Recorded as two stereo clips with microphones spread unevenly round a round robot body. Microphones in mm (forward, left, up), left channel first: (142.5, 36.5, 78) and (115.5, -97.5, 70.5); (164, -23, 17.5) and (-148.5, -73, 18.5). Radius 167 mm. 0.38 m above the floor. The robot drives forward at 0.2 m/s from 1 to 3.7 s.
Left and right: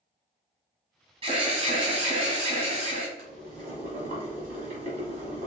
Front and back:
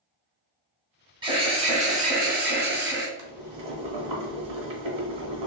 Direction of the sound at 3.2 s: 145° right.